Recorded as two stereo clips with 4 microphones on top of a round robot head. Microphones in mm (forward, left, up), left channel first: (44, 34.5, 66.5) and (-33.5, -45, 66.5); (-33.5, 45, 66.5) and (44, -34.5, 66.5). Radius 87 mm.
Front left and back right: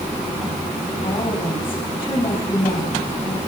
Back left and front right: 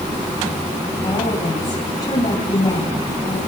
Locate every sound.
1.0 s a woman speaking: 95° left, 6 m